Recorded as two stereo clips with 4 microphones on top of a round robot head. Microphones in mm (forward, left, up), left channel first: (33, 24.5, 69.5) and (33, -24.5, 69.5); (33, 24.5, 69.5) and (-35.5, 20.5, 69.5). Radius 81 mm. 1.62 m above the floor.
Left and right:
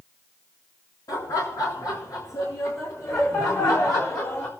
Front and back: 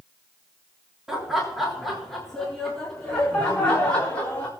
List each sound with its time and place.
1.1 s laughter: 100° left, 3.5 m; by 4.5 s 70° left, 4.5 m